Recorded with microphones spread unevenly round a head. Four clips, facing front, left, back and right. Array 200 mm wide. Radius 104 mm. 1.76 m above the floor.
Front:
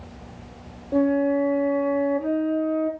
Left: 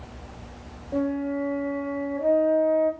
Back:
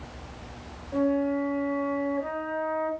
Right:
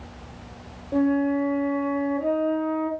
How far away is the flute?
About 1.1 m.